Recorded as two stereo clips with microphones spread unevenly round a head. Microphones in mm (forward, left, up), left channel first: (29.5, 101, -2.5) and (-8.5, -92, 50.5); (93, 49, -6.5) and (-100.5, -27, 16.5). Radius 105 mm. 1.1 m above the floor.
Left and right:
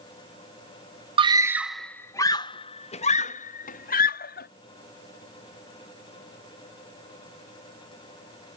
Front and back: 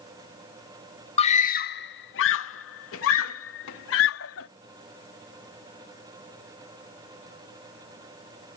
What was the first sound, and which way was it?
A scream, 30° right.